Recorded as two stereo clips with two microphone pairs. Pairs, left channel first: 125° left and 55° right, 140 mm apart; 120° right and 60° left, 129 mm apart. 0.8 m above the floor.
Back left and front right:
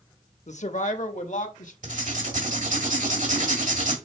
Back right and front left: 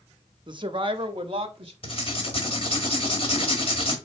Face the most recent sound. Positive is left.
turn(degrees=-80)